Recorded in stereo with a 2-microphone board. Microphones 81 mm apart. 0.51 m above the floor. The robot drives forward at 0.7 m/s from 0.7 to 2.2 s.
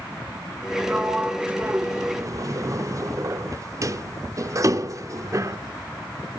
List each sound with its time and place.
0.9 s a sliding door: 15° right (ahead or behind), 1.2 m; by 5.6 s 40° right (ahead or behind), 0.5 m